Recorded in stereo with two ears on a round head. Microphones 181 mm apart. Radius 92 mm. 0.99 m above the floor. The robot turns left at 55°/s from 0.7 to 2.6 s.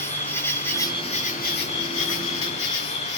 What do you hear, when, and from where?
0.0 s an insect: 170° left, 1.5 m; by 3.2 s 65° left, 1.5 m